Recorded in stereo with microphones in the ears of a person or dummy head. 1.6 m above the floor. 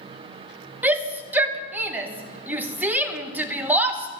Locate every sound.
0.8 s a shout: 15° right (ahead or behind), 2.5 m